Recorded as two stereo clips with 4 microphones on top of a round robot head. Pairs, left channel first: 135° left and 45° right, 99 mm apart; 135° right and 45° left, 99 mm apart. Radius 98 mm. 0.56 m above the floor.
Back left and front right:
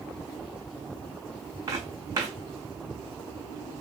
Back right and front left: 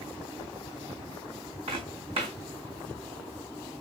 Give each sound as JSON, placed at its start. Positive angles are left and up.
{"t": 1.7, "sound": "footsteps", "azimuth_deg": 15, "distance_m": 3.0}